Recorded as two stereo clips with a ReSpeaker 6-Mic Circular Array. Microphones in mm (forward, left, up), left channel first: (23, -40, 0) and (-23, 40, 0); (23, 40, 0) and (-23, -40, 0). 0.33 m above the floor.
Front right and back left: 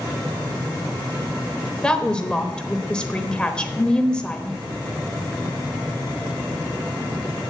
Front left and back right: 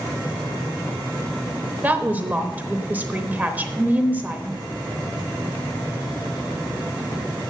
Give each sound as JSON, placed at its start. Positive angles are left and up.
{"t": 1.8, "sound": "a woman speaking", "azimuth_deg": -115, "distance_m": 0.9}